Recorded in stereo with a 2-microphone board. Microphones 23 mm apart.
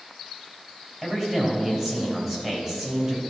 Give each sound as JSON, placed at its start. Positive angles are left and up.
{"t": 1.0, "sound": "a man speaking", "side_deg": -10, "distance_m": 4.0}